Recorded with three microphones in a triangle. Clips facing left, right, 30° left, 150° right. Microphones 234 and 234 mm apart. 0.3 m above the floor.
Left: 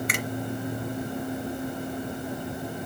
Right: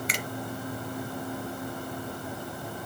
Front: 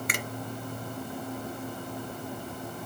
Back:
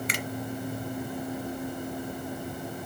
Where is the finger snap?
60° left, 1.9 m.